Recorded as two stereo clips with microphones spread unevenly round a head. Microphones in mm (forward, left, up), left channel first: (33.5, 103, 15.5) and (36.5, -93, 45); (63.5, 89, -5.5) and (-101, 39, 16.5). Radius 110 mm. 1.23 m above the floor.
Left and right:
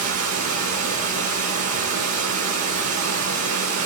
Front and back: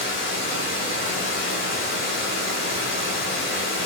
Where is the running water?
40° right, 2.5 m.